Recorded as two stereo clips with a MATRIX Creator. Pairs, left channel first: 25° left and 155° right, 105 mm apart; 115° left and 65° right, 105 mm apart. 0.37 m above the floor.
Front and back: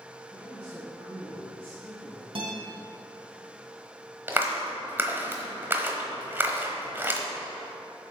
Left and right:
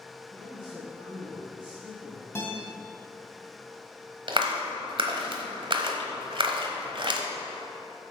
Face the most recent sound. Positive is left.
turn(degrees=-90)